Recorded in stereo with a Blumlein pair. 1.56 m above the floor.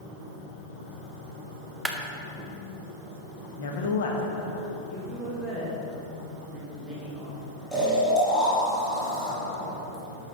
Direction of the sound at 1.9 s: 5° right.